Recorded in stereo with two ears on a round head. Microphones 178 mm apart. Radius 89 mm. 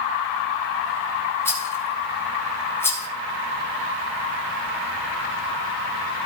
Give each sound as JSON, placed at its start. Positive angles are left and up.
{"t": 1.4, "sound": "a rattle", "side_deg": 15, "distance_m": 4.0}